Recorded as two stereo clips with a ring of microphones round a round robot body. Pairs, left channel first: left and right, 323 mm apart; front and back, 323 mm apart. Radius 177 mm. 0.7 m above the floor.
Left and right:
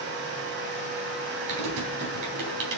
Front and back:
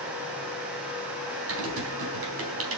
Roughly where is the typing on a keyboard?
Behind right.